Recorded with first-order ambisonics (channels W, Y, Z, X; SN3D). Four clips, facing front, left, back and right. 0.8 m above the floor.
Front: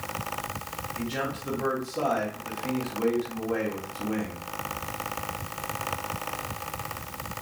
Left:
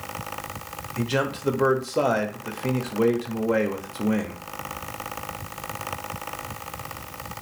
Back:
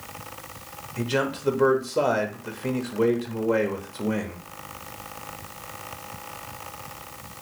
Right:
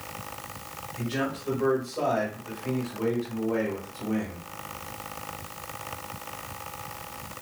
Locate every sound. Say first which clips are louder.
1.0 s a man speaking: left 5 dB, back 7 dB; 120° left, 0.8 m